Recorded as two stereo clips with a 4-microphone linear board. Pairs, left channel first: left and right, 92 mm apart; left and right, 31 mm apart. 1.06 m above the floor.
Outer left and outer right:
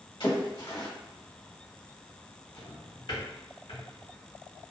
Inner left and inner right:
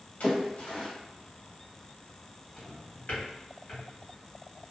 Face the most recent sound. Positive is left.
turn(degrees=65)  # may be behind; listen again after turning